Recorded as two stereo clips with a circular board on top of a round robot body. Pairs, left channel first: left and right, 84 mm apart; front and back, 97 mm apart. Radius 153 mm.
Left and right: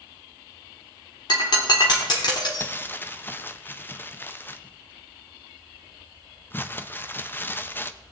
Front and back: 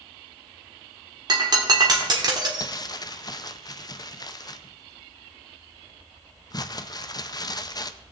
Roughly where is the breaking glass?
Behind left.